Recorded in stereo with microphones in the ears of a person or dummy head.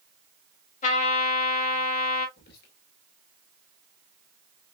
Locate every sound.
0.8 s a trumpet: 45° left (ahead or behind), 1.9 m
2.4 s whispering: 60° left (ahead or behind), 1.8 m